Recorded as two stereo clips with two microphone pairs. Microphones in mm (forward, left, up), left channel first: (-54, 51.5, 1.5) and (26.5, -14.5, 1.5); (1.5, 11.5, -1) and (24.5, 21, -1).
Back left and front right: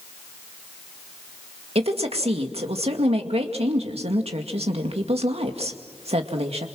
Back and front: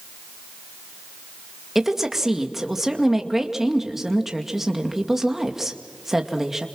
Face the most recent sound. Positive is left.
turn(degrees=-55)